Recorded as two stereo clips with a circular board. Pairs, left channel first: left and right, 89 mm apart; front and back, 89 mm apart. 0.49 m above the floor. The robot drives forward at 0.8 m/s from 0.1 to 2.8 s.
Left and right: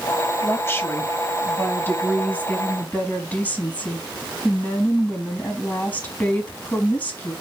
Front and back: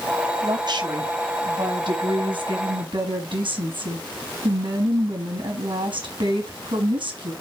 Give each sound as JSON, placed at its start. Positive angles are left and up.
{"t": 0.4, "sound": "a woman speaking", "azimuth_deg": 150, "distance_m": 3.0}